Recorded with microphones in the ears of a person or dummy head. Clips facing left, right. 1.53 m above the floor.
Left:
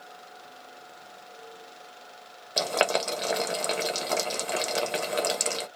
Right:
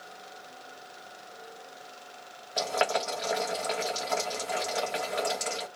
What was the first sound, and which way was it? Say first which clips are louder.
Boiling: left 2 dB; 50° left (ahead or behind).